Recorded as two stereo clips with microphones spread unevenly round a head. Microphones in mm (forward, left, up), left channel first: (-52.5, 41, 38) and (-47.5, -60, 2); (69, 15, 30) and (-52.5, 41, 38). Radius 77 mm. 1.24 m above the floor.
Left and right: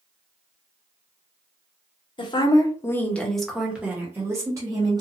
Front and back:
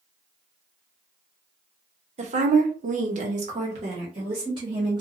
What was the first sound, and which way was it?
A woman speaking, 140° left.